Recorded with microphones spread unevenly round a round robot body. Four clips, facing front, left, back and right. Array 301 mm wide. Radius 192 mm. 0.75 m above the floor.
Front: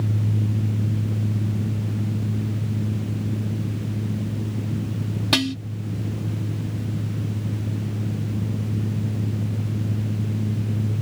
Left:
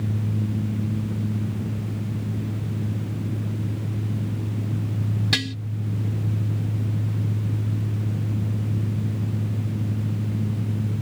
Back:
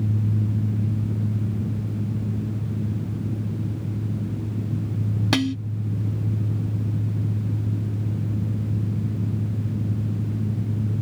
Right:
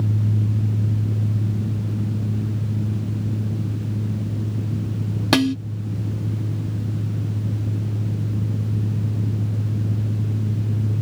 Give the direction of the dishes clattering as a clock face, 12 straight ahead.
3 o'clock.